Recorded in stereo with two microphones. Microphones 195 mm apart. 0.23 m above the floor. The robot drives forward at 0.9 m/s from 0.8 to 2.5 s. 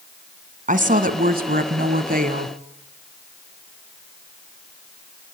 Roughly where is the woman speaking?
Right.